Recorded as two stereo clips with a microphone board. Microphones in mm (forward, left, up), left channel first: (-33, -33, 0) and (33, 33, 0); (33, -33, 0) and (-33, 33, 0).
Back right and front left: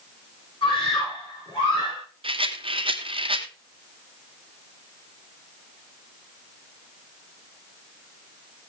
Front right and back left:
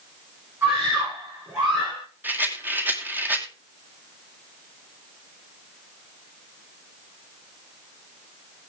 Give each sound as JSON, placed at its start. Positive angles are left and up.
{"t": 0.6, "sound": "a scream", "azimuth_deg": -165, "distance_m": 6.0}
{"t": 2.2, "sound": "a rattle", "azimuth_deg": 65, "distance_m": 1.6}